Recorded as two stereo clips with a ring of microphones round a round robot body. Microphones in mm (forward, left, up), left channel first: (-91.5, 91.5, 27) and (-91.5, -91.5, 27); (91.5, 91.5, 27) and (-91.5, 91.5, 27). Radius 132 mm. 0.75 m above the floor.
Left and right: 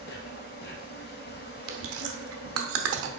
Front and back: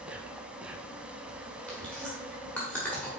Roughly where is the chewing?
Right.